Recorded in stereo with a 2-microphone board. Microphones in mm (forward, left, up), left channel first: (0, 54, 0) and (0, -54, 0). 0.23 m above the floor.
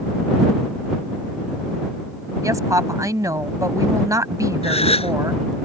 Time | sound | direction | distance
2.4 | a woman speaking | 30° right (ahead or behind) | ?
4.6 | a gasp | 70° left (ahead or behind) | ?